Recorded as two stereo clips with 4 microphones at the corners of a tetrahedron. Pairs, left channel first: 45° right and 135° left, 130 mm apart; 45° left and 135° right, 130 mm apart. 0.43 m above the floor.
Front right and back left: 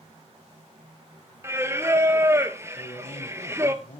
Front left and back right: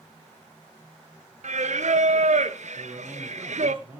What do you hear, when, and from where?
1.4 s singing: 155° right, 1.1 m
2.8 s a man speaking: 60° right, 7 m